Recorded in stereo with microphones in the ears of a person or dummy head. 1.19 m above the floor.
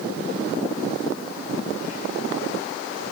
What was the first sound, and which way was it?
Only background noise.